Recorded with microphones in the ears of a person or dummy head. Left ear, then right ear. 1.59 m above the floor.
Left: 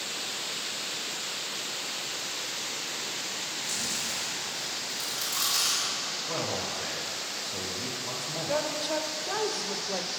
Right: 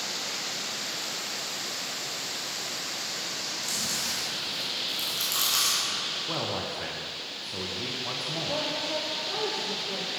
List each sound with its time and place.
3.6 s chewing: 45° right (ahead or behind), 1.7 m
6.3 s a man speaking: 10° right (ahead or behind), 0.8 m
8.5 s a woman speaking: 40° left (ahead or behind), 0.7 m